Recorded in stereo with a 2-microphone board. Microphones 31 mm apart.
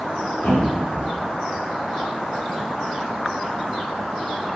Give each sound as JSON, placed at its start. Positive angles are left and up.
{"t": 0.4, "sound": "a thud", "side_deg": 85, "distance_m": 3.0}